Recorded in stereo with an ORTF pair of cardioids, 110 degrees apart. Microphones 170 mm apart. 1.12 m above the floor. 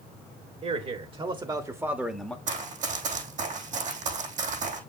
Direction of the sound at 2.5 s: 50° right.